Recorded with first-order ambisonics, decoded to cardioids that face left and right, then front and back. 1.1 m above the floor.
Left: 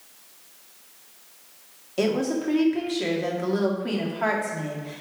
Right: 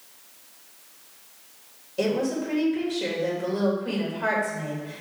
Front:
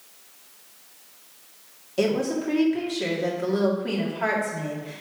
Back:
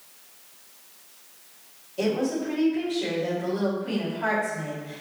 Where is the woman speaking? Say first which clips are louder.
Left 1 dB, front 2 dB; 55° left, 2 m.